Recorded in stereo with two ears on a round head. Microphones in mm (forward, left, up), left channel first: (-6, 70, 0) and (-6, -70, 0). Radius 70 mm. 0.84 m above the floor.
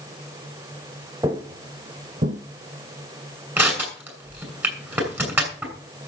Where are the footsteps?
20° right (ahead or behind), 1.7 m; by 2.4 s 50° right (ahead or behind), 1.9 m.